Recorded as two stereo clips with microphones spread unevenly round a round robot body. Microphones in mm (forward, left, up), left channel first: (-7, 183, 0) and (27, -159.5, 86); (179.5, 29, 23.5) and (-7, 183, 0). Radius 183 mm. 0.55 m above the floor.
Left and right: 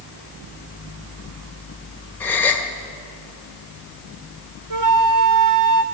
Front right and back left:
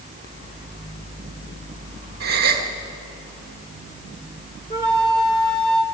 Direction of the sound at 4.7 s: 115° right.